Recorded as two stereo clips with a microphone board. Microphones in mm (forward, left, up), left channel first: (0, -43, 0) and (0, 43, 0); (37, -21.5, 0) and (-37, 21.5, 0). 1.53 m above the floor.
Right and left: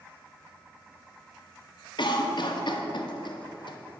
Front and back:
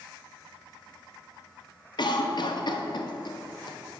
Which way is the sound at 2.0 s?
60° right.